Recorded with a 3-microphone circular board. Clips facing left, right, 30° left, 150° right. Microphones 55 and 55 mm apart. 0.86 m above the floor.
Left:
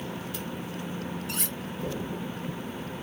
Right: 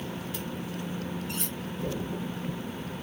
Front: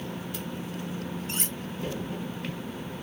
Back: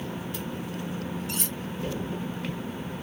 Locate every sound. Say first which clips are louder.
1.3 s cutlery clinking: left 1 dB, back 1 dB; 85° left, 0.8 m